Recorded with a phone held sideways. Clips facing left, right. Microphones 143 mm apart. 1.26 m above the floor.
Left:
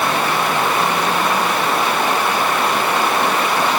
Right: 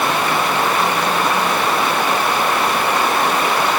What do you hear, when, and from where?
Only background noise.